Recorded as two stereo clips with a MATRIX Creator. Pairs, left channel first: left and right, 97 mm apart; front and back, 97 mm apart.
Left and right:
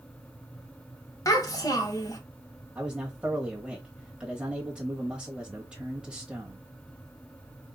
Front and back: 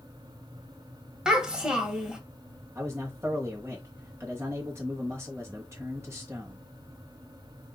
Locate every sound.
1.2 s a child speaking: 100° left, 1.3 m
2.8 s a man speaking: 155° right, 1.0 m